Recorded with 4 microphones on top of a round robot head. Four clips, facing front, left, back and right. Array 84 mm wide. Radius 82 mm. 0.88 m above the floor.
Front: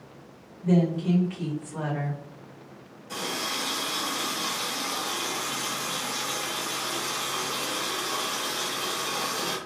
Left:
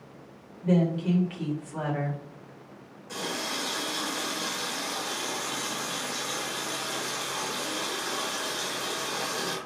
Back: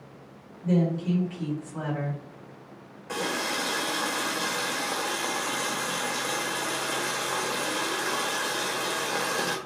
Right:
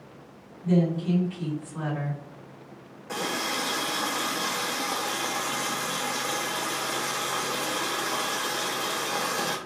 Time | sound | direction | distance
0.6 | a woman speaking | 65° left | 4 m
3.1 | a running tap | 135° right | 1.7 m